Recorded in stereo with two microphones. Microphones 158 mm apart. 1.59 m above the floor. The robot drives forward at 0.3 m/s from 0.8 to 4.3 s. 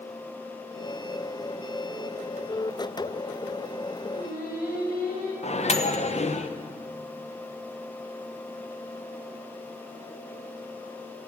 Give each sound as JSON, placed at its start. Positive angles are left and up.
{"t": 4.1, "sound": "singing", "side_deg": 70, "distance_m": 3.5}
{"t": 5.4, "sound": "a microwave", "side_deg": 45, "distance_m": 0.9}